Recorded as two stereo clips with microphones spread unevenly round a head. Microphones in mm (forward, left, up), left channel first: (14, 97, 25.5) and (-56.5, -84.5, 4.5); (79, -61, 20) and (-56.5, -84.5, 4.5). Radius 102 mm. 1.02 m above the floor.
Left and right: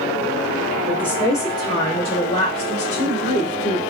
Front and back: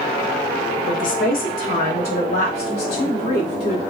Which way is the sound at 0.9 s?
20° right.